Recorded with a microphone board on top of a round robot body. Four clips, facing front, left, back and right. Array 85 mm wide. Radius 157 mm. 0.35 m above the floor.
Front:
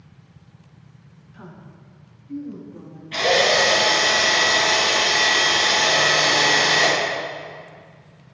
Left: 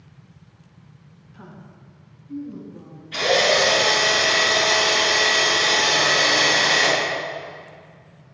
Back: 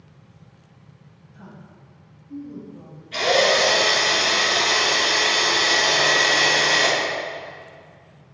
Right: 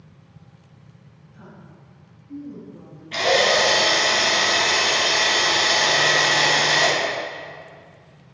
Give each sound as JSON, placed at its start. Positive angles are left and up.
{"t": 1.3, "sound": "a woman speaking", "azimuth_deg": 30, "distance_m": 1.5}
{"t": 3.1, "sound": "a drill", "azimuth_deg": -50, "distance_m": 2.5}